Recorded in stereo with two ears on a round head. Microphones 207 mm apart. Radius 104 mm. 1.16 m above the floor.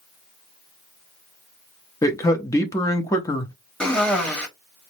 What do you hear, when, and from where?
2.0 s a man speaking: 15° left (ahead or behind), 0.6 m
3.8 s a cough: 5° left (ahead or behind), 1.2 m